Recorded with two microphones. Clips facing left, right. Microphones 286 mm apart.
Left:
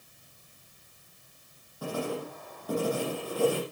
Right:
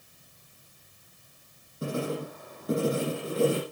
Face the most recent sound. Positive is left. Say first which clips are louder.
# right 2 dB
turn(degrees=-25)  # may be behind; listen again after turning